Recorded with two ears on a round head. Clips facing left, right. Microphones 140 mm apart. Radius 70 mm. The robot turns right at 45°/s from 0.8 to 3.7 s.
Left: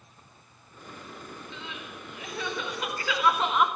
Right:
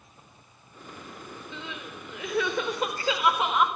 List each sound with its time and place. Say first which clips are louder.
1.5 s crying: right 2 dB; 95° right, 4 m; by 3.7 s 5° left, 4 m